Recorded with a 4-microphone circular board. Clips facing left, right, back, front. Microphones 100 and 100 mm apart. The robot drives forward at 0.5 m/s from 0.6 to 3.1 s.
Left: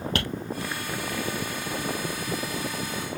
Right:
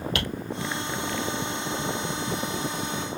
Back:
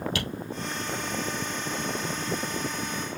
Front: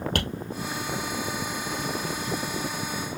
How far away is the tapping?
About 3 m.